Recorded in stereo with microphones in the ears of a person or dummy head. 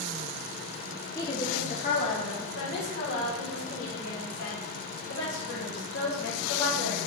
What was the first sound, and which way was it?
A woman speaking, 15° left (ahead or behind).